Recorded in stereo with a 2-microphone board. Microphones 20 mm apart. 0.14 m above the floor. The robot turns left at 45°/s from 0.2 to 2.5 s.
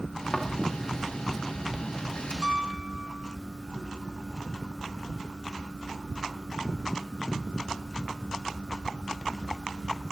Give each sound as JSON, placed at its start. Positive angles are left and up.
{"t": 0.3, "sound": "a thud", "side_deg": 45, "distance_m": 6.0}
{"t": 2.4, "sound": "a piano", "side_deg": -45, "distance_m": 1.4}